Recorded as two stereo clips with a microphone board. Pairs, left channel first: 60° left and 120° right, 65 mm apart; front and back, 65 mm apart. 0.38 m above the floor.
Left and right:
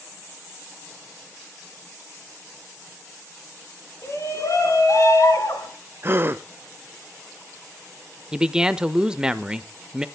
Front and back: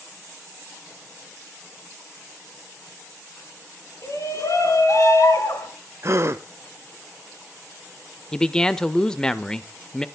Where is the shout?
30° left, 3 m; by 5.7 s 35° left, 4 m.